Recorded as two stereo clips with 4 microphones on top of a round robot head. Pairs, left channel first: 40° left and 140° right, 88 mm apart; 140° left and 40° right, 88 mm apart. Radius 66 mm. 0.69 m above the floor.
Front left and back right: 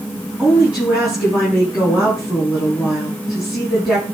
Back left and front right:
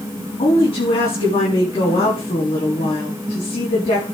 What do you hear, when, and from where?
0.4 s a woman speaking: 140° left, 7 m